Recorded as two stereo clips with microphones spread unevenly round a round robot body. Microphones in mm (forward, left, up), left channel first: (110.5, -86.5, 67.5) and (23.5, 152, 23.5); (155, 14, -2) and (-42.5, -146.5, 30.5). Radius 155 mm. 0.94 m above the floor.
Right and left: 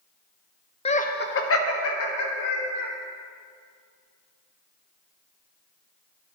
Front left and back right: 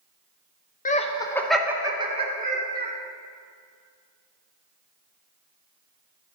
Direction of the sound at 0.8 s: Straight ahead.